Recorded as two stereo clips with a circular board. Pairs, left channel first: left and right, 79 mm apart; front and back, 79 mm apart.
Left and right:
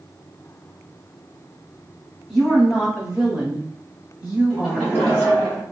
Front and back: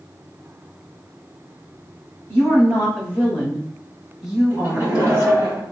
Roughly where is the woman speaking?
Ahead.